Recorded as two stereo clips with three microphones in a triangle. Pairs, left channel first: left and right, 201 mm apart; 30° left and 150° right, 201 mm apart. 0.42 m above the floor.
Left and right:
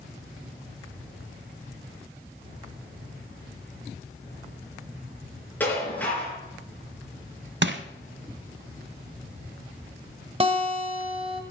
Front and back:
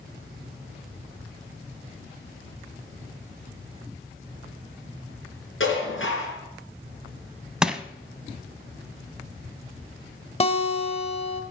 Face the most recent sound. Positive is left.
turn(degrees=-30)